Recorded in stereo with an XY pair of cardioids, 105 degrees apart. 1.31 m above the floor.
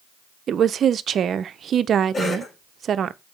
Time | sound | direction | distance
0.5 | a woman speaking | 55° right | 0.6 m
2.1 | a cough | 30° left | 4 m